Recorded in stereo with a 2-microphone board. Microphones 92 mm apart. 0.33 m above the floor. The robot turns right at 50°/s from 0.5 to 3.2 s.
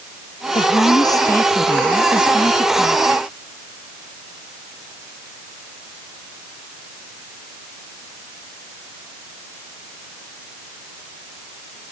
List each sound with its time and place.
0.6 s a woman speaking: 110° left; by 3.3 s 115° right